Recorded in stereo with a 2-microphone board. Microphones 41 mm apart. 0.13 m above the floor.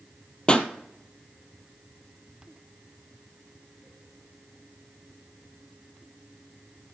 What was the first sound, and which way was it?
A pop, 25° left (ahead or behind).